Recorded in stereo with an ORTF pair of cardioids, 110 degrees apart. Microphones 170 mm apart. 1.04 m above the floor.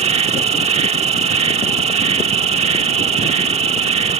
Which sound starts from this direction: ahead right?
An insect, at 0.0 s.